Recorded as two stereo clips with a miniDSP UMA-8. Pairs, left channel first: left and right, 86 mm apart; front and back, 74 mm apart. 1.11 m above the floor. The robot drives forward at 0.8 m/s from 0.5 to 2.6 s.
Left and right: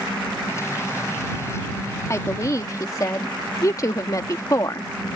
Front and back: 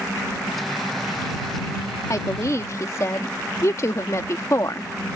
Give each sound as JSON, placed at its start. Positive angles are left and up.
{"t": 2.1, "sound": "a woman speaking", "azimuth_deg": 35}